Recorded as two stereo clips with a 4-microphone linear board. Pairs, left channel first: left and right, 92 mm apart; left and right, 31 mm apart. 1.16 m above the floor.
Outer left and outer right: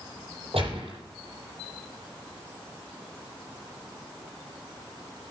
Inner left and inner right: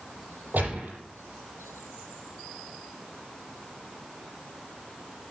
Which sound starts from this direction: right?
A gunshot, at 0.5 s.